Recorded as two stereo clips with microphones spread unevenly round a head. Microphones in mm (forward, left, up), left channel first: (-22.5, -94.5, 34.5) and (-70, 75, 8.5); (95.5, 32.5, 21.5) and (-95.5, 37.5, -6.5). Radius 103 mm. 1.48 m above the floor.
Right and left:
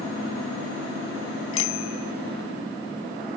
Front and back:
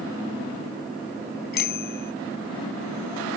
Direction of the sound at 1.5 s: 45° right.